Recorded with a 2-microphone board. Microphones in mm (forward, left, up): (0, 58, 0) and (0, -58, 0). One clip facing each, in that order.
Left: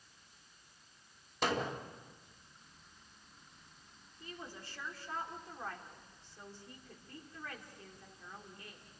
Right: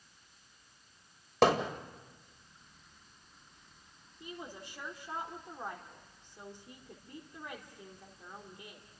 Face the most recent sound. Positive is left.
turn(degrees=-20)  # may be behind; listen again after turning